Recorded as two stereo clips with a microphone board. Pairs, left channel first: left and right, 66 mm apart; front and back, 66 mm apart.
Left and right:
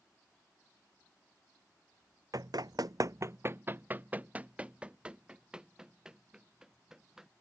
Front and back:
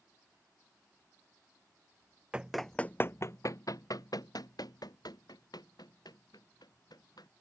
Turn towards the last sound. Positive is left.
turn(degrees=-10)